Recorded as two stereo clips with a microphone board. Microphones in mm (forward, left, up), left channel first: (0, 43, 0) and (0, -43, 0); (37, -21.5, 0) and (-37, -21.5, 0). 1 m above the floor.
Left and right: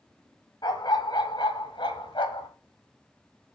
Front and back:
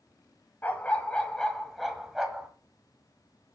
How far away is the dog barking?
About 1.9 m.